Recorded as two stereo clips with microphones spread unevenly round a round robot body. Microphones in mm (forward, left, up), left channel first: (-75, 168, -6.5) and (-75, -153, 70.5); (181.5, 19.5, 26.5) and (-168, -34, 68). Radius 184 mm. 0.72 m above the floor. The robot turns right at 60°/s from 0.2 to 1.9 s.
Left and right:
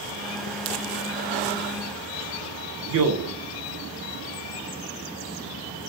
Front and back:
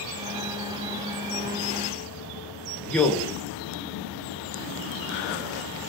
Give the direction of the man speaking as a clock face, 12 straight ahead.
2 o'clock.